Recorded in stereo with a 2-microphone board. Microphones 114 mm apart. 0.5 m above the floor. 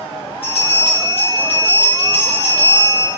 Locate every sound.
0.4 s a bell: 60° left (ahead or behind), 4.5 m